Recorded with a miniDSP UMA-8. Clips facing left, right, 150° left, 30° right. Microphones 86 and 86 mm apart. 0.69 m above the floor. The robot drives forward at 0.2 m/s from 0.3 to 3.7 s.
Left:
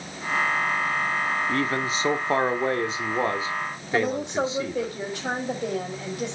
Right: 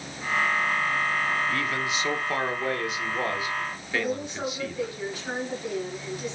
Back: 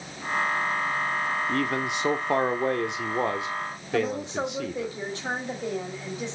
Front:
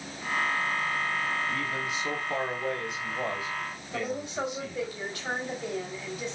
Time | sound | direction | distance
1.5 | a man speaking | 140° left | 1.2 m
3.9 | a woman speaking | 85° left | 4.5 m